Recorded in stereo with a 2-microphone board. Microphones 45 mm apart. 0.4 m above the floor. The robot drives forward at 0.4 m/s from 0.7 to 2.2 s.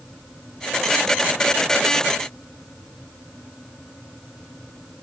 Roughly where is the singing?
No singing in this recording.